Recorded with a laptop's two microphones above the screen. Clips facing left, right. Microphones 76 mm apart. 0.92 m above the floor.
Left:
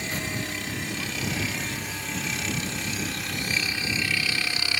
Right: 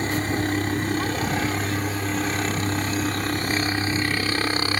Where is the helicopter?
45° right (ahead or behind).